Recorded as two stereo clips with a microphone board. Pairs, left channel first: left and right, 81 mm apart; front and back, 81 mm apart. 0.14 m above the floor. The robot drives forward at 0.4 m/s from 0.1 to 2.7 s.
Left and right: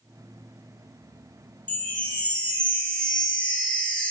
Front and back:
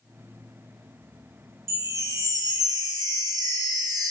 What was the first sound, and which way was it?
A chime, 150° left.